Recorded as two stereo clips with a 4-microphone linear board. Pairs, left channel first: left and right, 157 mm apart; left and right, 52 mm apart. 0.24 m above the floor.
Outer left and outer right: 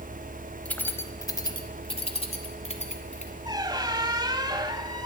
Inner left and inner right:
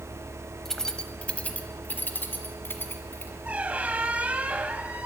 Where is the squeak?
25° right (ahead or behind), 0.9 m.